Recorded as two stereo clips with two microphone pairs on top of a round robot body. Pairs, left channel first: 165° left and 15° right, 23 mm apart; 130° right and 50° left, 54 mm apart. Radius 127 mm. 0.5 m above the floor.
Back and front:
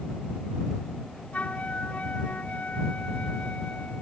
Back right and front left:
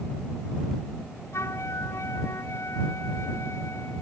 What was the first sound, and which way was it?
A flute, 170° right.